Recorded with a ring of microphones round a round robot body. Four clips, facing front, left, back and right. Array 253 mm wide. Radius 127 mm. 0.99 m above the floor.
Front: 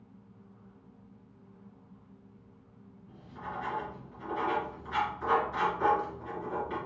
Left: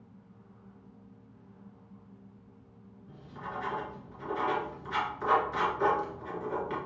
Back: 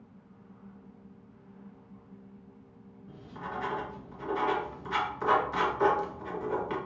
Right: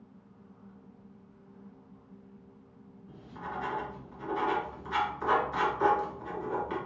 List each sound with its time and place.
3.1 s writing: 175° left, 1.2 m